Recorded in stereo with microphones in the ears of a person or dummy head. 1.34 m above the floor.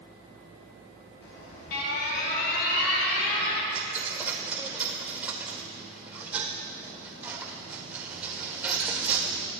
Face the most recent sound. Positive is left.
turn(degrees=-10)  # may be behind; listen again after turning